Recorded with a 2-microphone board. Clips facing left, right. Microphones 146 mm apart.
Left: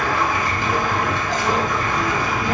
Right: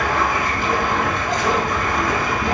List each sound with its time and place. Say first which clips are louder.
0.0 s running water: right 1 dB; 55° right (ahead or behind), 0.9 m